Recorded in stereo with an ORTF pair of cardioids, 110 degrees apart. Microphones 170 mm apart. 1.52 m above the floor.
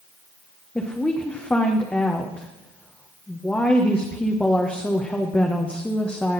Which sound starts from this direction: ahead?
A woman speaking, at 0.8 s.